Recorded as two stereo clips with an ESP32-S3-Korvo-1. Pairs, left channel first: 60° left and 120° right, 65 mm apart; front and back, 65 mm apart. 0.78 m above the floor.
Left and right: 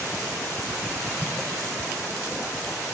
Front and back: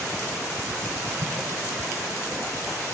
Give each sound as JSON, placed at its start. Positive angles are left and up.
{"t": 1.2, "sound": "an explosion", "azimuth_deg": -165, "distance_m": 3.0}